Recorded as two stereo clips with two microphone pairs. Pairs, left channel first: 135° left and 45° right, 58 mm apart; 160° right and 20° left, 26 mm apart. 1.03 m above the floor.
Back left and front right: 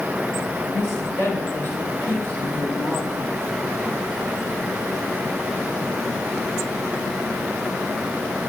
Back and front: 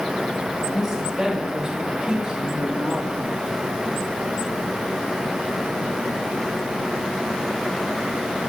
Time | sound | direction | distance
0.7 | a woman speaking | 100° left | 3.5 m